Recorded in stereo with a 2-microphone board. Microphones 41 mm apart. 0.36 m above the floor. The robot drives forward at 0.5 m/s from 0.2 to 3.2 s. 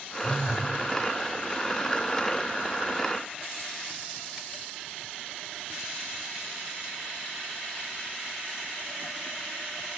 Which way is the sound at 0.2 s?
15° left (ahead or behind).